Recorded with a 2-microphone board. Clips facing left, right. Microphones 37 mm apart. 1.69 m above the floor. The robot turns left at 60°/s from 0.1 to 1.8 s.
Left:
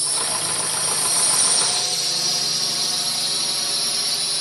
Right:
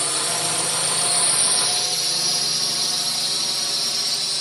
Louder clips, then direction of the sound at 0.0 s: Right 2 dB; 55° right (ahead or behind).